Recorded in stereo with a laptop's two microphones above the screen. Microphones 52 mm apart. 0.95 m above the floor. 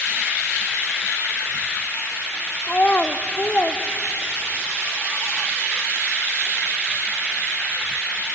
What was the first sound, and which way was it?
A child speaking, 25° left (ahead or behind).